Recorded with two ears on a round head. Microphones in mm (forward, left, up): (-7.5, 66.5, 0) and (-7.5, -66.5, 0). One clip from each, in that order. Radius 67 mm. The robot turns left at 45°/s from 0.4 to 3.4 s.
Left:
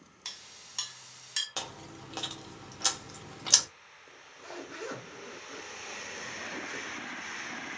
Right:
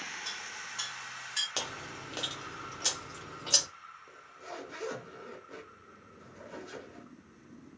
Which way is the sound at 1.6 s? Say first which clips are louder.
Right 3 dB; 10° right (ahead or behind).